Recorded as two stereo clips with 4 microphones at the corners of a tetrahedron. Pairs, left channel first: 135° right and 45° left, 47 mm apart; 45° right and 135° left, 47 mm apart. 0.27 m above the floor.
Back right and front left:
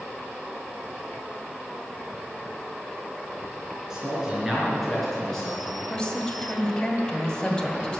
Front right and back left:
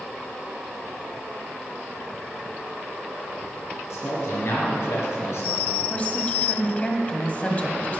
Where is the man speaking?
30° right, 4 m; by 5.8 s 60° right, 4.5 m.